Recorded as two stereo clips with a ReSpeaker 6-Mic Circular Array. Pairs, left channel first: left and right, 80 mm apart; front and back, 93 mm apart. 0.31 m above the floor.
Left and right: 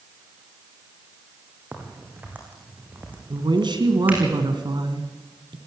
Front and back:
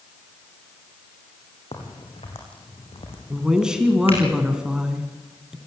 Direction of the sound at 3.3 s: 100° right.